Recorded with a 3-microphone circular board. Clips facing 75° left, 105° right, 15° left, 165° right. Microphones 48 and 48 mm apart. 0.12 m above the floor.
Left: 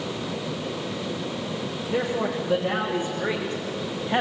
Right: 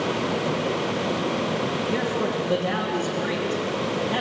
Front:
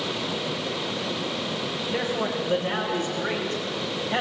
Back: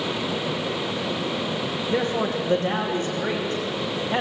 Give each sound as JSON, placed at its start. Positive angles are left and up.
{"t": 1.9, "sound": "a man speaking", "azimuth_deg": 170, "distance_m": 5.5}